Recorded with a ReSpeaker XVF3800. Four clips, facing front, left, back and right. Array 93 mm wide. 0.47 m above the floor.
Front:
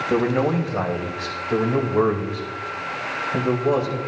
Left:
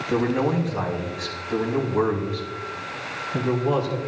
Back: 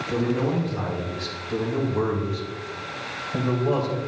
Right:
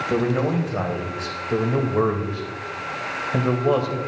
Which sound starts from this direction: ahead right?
A man speaking, at 0.1 s.